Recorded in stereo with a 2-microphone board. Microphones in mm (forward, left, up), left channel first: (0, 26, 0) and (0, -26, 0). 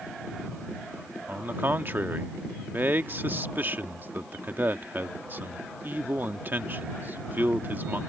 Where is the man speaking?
40° right (ahead or behind).